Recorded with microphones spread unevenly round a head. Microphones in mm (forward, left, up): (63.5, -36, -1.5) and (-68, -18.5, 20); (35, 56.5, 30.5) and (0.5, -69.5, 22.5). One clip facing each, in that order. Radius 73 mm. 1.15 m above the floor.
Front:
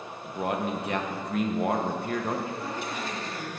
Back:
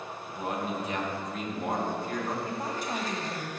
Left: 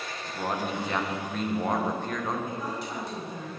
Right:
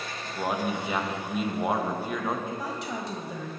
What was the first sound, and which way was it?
A man speaking, 25° right.